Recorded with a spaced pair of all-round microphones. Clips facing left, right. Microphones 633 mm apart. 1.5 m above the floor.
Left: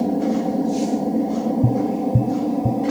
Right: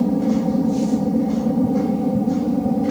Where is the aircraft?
30° right (ahead or behind); by 2.9 s 35° right (ahead or behind).